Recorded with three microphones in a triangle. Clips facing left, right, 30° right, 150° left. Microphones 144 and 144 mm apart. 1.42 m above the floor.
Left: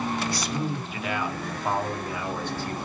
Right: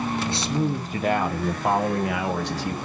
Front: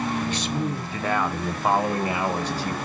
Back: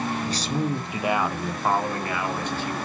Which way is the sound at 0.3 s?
160° right.